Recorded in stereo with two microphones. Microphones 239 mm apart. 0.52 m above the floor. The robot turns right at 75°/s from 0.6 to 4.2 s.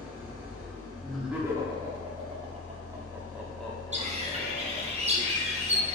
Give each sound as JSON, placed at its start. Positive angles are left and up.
{"t": 0.0, "sound": "an engine running", "azimuth_deg": -5, "distance_m": 1.4}
{"t": 1.0, "sound": "laughter", "side_deg": 5, "distance_m": 0.7}
{"t": 3.9, "sound": "a bird", "side_deg": -25, "distance_m": 0.6}